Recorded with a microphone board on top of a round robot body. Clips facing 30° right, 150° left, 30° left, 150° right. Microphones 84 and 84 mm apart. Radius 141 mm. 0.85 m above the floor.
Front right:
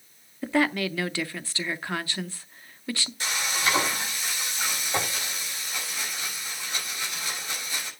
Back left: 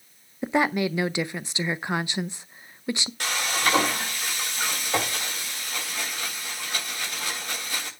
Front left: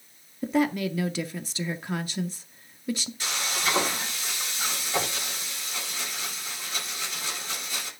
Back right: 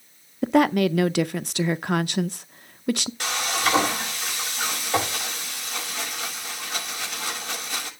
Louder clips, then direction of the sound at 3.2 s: Back left 2 dB, back right 6 dB; 175° right.